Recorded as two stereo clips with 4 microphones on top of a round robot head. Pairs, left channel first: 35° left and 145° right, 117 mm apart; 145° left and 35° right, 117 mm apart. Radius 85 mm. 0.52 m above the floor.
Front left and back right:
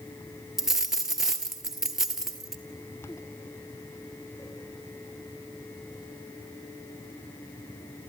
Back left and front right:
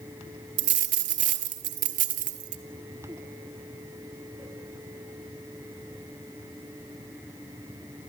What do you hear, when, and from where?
0.6 s a dropped coin: 60° right, 1.2 m